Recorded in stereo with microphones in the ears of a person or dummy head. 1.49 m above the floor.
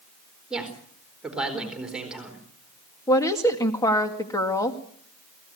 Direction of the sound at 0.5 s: 5° right (ahead or behind).